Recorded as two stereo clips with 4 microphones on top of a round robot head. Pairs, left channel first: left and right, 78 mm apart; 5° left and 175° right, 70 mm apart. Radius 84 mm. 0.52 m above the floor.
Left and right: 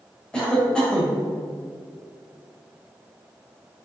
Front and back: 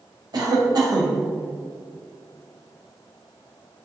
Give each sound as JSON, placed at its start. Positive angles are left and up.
{"t": 0.3, "sound": "a cough", "azimuth_deg": 170, "distance_m": 3.5}